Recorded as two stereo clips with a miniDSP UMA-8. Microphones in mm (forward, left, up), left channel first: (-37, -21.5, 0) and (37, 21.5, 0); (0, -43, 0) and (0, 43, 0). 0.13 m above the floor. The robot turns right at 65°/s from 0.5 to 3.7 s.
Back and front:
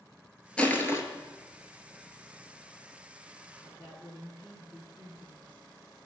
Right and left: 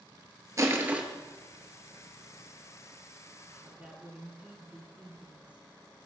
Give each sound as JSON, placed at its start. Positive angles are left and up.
{"t": 0.6, "sound": "crushing", "azimuth_deg": 135, "distance_m": 0.8}
{"t": 3.5, "sound": "a woman speaking", "azimuth_deg": 25, "distance_m": 1.1}